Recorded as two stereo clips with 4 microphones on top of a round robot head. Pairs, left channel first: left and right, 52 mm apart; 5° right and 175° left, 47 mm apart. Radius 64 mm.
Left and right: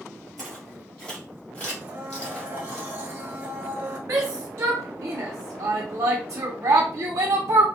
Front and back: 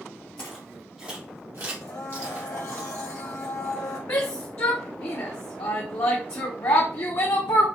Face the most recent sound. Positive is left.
turn(degrees=-35)